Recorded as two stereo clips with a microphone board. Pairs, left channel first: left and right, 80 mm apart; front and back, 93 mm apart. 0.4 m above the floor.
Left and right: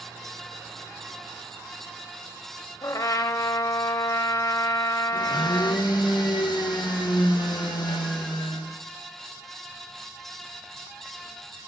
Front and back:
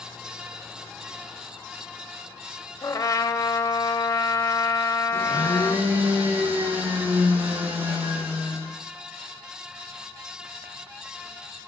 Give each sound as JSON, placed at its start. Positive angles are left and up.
{"t": 2.8, "sound": "a trumpet", "azimuth_deg": 50, "distance_m": 0.8}
{"t": 5.1, "sound": "a blender", "azimuth_deg": 110, "distance_m": 3.0}